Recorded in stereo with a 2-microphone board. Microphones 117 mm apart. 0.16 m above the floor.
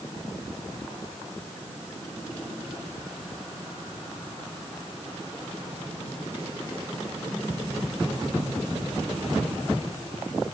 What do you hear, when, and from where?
Only background noise.